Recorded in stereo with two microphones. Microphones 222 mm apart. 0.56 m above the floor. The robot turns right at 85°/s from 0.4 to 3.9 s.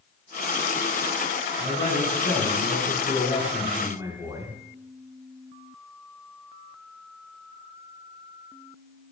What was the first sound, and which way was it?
A man speaking, 5° left.